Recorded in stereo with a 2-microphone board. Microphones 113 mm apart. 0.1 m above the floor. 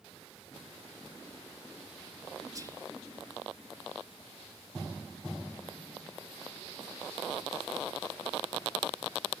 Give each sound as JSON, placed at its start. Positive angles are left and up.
{"t": 2.5, "sound": "whispering", "side_deg": -30, "distance_m": 1.7}